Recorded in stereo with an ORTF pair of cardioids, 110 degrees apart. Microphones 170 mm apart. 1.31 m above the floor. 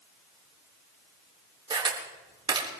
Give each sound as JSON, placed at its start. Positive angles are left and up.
{"t": 1.7, "sound": "a camera shutter", "azimuth_deg": -25, "distance_m": 3.5}